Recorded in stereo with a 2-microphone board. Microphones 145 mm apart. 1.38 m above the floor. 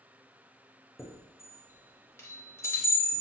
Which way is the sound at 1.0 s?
20° left (ahead or behind).